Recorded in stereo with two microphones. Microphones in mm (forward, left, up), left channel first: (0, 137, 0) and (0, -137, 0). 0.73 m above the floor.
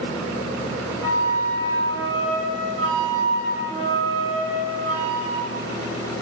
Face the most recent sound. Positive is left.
turn(degrees=-55)  # may be behind; listen again after turning